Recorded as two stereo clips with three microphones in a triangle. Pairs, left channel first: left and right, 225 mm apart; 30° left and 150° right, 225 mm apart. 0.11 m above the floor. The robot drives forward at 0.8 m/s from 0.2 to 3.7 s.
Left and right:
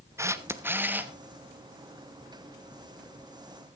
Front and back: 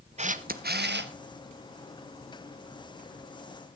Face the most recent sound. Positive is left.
turn(degrees=-175)